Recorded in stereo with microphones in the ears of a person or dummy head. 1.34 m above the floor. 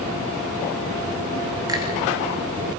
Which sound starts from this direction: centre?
A finger snap, at 1.7 s.